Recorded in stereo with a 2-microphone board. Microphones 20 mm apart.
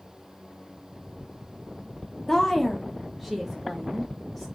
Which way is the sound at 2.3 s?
20° left (ahead or behind).